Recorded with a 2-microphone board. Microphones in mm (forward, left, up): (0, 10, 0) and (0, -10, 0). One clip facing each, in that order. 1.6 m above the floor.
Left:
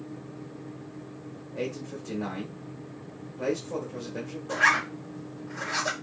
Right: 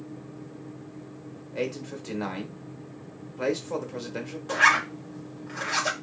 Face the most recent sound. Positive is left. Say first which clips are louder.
# right 2 dB
turn(degrees=-75)  # may be behind; listen again after turning